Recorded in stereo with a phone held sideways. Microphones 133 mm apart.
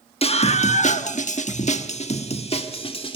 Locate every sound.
0.2 s a scream: 50° left (ahead or behind), 1.4 m; by 3.2 s 45° left (ahead or behind), 2.5 m